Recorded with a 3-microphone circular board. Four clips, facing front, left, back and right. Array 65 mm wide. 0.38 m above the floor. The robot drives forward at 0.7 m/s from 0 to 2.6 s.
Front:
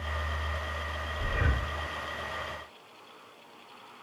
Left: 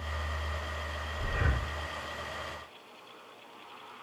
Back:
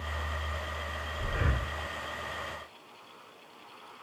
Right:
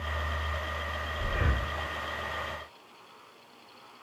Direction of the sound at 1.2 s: 30° right.